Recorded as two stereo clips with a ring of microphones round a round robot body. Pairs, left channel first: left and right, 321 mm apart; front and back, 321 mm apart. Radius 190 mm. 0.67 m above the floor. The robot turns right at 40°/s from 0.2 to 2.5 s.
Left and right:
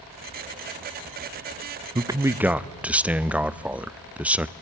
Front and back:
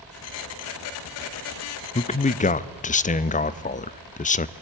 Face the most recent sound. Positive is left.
turn(degrees=-10)